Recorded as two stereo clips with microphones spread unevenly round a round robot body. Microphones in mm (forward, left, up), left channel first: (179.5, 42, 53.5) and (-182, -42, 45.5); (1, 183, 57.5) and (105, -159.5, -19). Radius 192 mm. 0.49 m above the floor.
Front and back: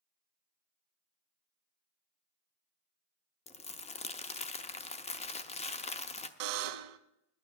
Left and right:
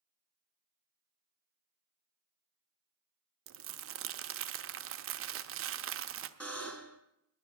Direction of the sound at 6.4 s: 170° right.